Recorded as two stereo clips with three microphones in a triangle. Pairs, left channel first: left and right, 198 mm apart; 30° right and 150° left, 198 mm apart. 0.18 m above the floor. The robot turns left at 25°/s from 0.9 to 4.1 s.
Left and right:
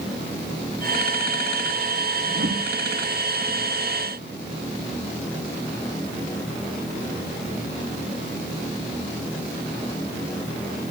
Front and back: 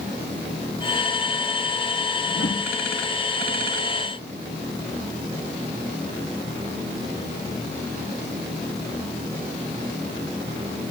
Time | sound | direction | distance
2.3 | a whoosh | 50° right | 3 m